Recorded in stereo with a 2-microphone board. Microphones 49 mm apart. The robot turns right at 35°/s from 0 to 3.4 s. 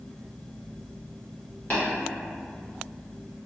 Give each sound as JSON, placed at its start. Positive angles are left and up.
{"t": 1.7, "sound": "tapping", "side_deg": 35, "distance_m": 1.2}